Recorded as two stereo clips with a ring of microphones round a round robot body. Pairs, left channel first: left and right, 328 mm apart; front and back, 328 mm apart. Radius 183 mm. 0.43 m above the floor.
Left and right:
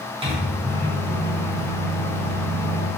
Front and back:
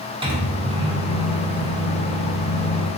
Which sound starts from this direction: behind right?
A microwave, at 0.2 s.